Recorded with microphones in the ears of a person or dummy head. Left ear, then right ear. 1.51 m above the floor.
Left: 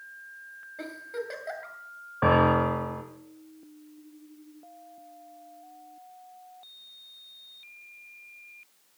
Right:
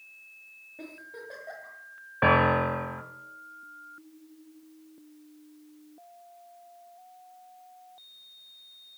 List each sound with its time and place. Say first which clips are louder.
0.8 s a giggle: left 8 dB; 50° left (ahead or behind), 2.5 m
2.2 s a piano: even; 25° right (ahead or behind), 1.4 m